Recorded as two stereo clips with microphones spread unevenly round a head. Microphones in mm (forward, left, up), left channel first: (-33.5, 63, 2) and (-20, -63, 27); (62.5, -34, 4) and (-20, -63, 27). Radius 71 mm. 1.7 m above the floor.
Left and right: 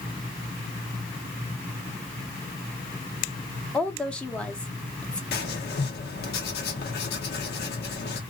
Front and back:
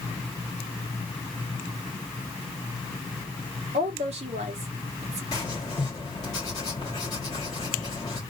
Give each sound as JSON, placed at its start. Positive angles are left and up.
{"t": 3.7, "sound": "a woman speaking", "azimuth_deg": 180, "distance_m": 1.1}
{"t": 5.3, "sound": "writing", "azimuth_deg": 90, "distance_m": 1.5}